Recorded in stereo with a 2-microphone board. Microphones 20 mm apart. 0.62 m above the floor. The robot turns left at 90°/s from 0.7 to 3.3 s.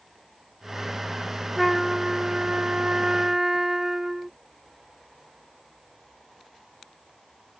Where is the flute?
5° left; by 4.3 s 150° right.